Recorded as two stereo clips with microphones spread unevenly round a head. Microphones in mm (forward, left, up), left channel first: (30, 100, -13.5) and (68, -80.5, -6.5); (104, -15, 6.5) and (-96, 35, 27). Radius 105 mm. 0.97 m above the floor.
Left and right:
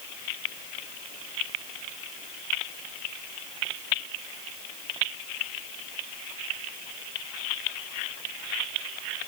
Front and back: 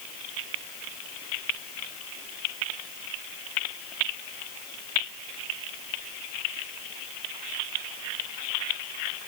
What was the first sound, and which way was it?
Only background noise.